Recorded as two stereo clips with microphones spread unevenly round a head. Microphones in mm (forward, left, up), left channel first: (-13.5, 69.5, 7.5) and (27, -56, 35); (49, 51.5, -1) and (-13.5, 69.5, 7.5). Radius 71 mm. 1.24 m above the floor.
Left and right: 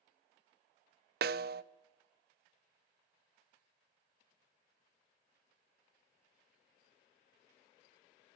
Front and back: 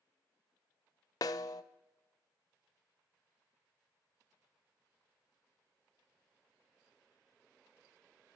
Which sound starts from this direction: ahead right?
A snare drum, at 1.2 s.